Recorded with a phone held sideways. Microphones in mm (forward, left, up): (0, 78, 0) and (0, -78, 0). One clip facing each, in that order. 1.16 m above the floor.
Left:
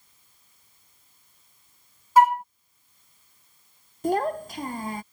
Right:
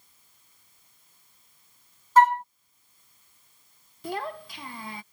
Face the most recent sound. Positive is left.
turn(degrees=45)  # may be behind; listen again after turning